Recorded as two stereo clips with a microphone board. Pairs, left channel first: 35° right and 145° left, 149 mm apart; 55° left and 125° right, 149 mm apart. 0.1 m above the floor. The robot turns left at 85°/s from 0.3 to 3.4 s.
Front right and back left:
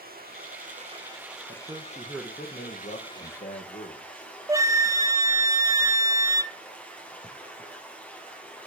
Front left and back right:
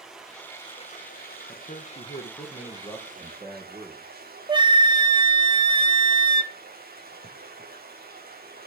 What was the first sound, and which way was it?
Running water, 150° left.